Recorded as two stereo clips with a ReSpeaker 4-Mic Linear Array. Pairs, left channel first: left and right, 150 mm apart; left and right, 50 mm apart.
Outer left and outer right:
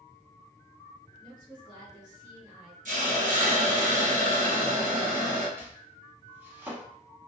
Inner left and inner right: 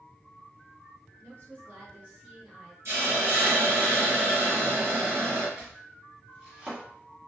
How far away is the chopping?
About 1.1 m.